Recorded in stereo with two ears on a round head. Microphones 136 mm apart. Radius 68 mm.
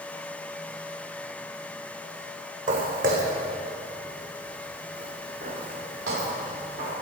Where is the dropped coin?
No dropped coin in this recording.